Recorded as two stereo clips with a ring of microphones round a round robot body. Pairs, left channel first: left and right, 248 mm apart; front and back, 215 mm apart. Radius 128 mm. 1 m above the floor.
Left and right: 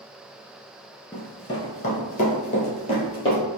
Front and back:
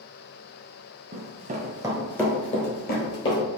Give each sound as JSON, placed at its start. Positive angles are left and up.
{"t": 1.1, "sound": "running footsteps", "azimuth_deg": 160, "distance_m": 1.4}